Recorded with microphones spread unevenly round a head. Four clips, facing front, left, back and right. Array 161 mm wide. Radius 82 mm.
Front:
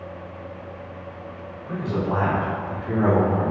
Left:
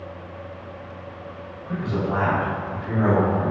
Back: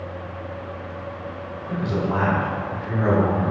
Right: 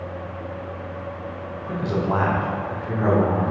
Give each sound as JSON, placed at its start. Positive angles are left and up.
{"t": 1.7, "sound": "a man speaking", "azimuth_deg": -95, "distance_m": 1.1}